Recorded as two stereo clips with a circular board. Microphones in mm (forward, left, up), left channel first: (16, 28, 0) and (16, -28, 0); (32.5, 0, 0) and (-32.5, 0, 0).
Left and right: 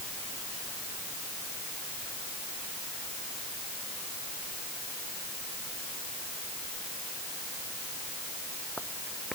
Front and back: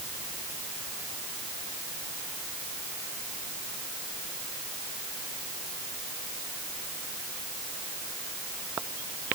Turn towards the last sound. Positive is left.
No sound to turn to.